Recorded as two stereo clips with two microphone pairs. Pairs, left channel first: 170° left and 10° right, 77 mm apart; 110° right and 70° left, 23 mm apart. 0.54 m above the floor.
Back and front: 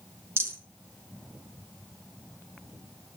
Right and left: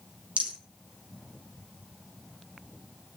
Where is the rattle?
50° left, 5 m.